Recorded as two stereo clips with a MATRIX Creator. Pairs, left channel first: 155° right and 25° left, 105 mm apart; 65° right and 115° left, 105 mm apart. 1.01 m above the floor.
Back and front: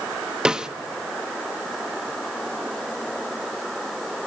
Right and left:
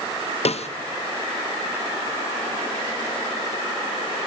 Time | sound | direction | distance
0.5 | a snare drum | 60° right | 0.7 m